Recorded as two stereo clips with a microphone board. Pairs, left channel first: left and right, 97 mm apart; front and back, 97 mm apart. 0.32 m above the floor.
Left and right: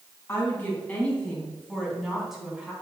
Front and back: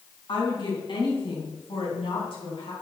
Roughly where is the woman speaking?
Ahead left.